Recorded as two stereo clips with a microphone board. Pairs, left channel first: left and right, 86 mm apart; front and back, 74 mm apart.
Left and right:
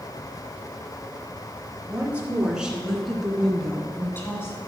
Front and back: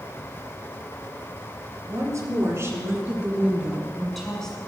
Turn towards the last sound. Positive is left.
turn(degrees=70)